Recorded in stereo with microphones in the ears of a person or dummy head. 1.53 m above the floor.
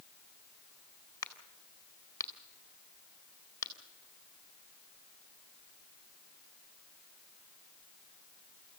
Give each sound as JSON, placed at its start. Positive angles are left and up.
{"t": 1.2, "sound": "a crack", "side_deg": 15, "distance_m": 2.0}